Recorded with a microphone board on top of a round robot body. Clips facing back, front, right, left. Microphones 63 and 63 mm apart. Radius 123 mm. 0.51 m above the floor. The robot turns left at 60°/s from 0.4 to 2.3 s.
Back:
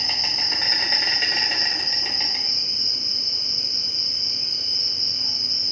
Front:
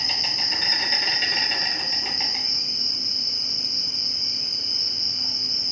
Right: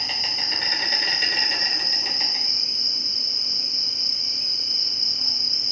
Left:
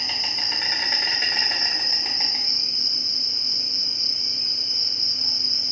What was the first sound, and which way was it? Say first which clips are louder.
An insect: back 1 dB, even; straight behind.